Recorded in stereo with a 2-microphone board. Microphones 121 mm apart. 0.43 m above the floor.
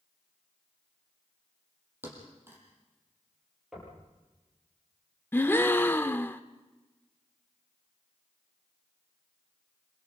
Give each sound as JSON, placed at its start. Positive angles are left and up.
{"t": 2.0, "sound": "a thud", "side_deg": -20, "distance_m": 6.0}
{"t": 3.7, "sound": "knocking", "side_deg": -5, "distance_m": 9.0}
{"t": 5.3, "sound": "a gasp", "side_deg": 20, "distance_m": 0.8}